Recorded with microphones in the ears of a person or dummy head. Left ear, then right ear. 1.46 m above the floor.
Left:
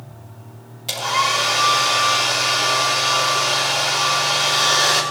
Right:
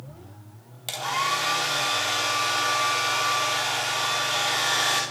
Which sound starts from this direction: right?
A hair dryer, at 0.9 s.